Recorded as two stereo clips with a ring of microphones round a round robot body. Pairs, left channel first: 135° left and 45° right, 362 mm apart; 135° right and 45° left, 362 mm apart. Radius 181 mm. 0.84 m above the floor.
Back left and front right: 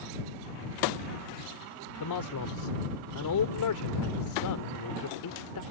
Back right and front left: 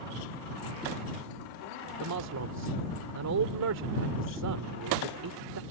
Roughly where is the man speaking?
Left.